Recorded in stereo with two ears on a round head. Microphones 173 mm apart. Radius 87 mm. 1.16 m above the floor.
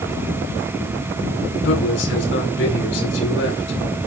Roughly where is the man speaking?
Left.